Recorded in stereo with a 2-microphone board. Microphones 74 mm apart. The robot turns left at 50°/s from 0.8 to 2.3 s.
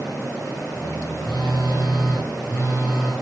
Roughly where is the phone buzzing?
Left.